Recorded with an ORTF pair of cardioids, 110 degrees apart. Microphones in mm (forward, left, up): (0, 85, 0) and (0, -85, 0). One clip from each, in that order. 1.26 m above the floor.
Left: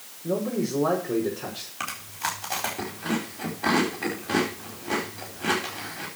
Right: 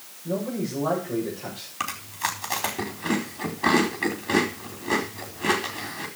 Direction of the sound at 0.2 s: 70° left.